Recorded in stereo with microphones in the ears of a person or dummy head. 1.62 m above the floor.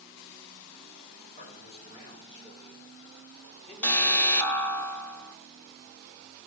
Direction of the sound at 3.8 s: 10° left (ahead or behind).